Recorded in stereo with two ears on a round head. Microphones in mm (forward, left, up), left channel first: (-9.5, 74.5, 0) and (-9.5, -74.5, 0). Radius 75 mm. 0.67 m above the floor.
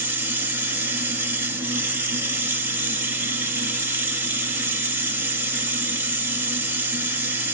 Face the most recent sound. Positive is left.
turn(degrees=-15)  # may be behind; listen again after turning